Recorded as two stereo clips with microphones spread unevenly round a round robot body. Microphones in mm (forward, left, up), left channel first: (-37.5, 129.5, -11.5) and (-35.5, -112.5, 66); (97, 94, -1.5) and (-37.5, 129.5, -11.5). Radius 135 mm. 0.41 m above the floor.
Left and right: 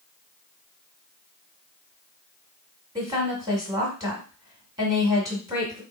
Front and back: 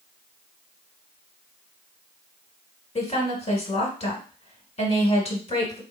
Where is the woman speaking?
Straight ahead, 1.5 m.